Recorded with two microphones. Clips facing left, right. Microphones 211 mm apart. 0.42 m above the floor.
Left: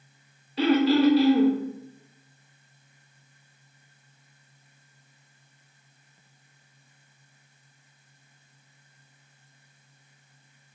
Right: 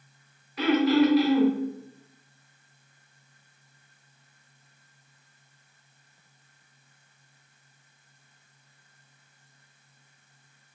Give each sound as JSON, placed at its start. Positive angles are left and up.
{"t": 0.6, "sound": "throat clearing", "side_deg": 30, "distance_m": 0.6}